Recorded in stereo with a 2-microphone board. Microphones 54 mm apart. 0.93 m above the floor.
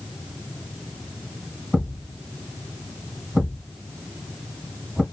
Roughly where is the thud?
Centre.